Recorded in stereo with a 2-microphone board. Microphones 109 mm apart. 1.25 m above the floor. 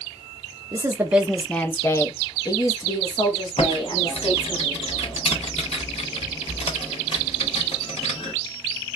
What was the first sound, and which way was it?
A woman speaking, 30° right (ahead or behind).